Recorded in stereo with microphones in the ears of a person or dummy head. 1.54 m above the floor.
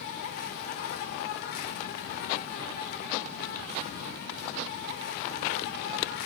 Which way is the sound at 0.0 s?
50° left (ahead or behind).